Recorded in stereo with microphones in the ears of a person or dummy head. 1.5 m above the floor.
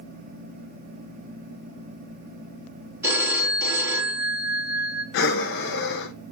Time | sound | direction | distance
3.0 | a phone ringing | 15° right (ahead or behind) | 2.5 m
5.1 | breathing | 65° left (ahead or behind) | 0.8 m